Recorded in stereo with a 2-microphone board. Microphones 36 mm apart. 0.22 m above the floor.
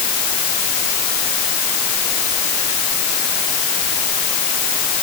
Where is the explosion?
No explosion in this recording.